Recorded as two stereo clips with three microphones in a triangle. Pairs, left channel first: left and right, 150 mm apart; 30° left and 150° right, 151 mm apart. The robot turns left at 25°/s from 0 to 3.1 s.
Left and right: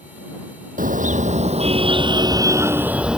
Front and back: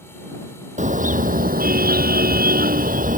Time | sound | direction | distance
0.8 | a car horn | 115° right | ?